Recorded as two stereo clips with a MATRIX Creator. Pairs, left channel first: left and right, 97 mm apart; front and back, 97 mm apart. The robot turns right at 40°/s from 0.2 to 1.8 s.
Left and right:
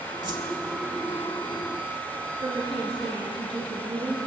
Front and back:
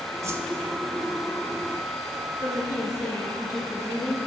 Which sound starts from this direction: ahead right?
A woman speaking, at 2.4 s.